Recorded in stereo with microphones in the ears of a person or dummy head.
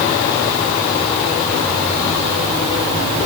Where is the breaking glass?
No breaking glass in this recording.